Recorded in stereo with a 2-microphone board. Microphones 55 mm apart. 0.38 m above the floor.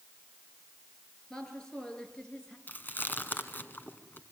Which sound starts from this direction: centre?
A woman speaking, at 1.3 s.